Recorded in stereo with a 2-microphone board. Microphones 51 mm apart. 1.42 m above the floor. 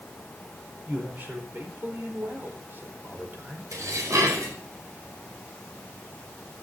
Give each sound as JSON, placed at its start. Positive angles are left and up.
{"t": 0.9, "sound": "a man speaking", "side_deg": -40, "distance_m": 4.5}
{"t": 3.7, "sound": "dishes clattering", "side_deg": -85, "distance_m": 4.5}